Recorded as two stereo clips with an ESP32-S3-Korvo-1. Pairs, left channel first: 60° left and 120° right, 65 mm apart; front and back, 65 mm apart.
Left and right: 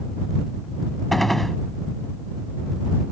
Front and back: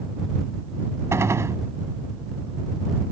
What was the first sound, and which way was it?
A gunshot, 145° left.